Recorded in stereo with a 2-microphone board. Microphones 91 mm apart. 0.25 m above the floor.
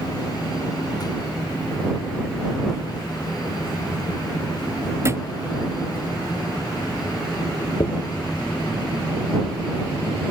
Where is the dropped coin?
60° left (ahead or behind).